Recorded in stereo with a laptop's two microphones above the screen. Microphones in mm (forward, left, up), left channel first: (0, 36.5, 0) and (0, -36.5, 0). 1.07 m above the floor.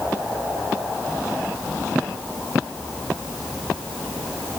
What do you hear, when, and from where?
Only background noise.